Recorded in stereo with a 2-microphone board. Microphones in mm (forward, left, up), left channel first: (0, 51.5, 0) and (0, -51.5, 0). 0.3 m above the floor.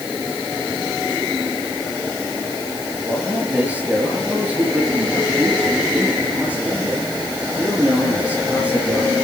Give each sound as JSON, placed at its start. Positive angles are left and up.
{"t": 3.1, "sound": "a man speaking", "side_deg": -15, "distance_m": 6.0}